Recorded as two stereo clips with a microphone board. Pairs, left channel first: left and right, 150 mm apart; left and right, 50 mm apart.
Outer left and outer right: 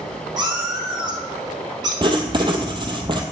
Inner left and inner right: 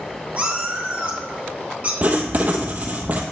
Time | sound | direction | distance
0.4 | a cat meowing | 30° right (ahead or behind) | 1.8 m
2.0 | writing | 35° right (ahead or behind) | 0.9 m